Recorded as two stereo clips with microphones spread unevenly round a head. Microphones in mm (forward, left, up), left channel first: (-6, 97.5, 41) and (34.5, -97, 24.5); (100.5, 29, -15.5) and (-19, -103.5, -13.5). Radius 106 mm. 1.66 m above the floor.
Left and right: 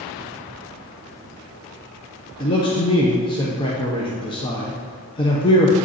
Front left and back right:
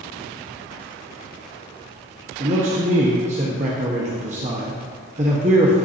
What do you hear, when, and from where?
2.4 s a man speaking: 170° left, 1.0 m